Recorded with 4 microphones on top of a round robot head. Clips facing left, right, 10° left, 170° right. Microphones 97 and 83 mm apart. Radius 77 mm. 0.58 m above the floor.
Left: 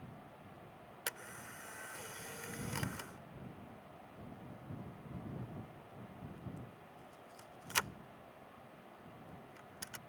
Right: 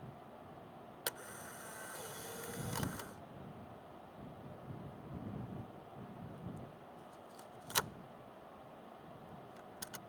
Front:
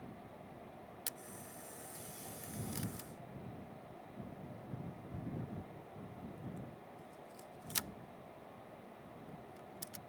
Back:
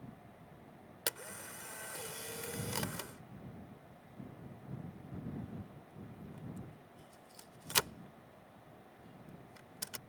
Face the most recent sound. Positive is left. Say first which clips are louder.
# right 1 dB, back 6 dB
turn(degrees=-165)